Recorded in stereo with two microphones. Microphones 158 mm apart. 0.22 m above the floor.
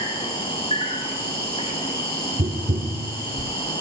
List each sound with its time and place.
0.0 s an insect: 30° left (ahead or behind), 8 m
2.4 s tapping: 55° right (ahead or behind), 2.5 m